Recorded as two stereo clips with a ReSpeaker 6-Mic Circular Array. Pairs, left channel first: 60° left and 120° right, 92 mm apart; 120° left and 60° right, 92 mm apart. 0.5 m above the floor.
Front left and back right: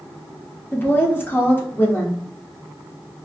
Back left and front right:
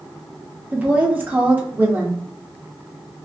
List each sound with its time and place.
0.7 s a woman speaking: straight ahead, 0.8 m